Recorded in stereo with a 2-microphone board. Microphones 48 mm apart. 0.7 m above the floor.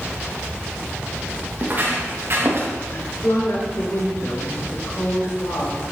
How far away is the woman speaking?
About 3 m.